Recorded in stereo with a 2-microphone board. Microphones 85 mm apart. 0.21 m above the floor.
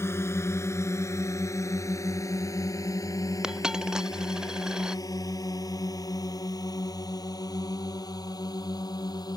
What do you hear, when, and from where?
0.0 s a drone: 30° left (ahead or behind); by 9.4 s 50° left (ahead or behind)
3.4 s a dropped coin: 5° right (ahead or behind)